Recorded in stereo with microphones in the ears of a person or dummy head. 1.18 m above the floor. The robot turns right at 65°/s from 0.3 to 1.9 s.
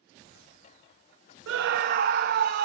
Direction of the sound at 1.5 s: 85° right.